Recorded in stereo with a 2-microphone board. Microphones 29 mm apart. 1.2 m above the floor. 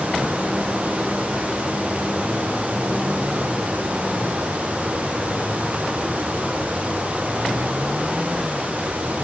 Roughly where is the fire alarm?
No fire alarm in this recording.